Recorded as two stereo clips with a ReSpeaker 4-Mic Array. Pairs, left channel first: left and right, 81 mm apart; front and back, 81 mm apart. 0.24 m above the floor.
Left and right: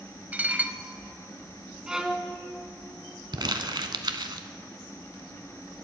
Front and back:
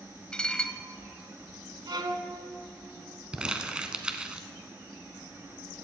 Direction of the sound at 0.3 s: 60° right.